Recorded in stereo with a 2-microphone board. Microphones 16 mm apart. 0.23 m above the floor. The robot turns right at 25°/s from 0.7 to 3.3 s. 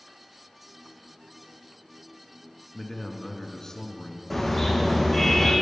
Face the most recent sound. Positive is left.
turn(degrees=10)  # may be behind; listen again after turning